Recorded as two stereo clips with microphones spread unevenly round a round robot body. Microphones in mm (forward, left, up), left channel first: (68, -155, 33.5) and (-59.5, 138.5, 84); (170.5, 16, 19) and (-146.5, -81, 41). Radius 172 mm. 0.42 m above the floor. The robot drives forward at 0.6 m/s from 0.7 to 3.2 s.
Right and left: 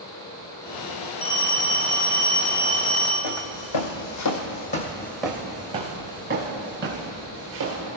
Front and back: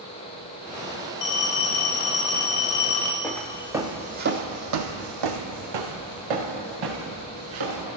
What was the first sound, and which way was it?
A phone ringing, 5° right.